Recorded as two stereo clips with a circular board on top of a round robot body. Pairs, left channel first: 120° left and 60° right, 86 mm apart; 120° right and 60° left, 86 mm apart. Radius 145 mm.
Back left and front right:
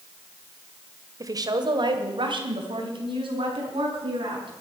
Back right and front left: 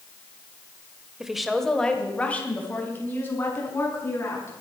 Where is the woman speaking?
20° right, 1.7 m; by 4.6 s 60° right, 5.5 m.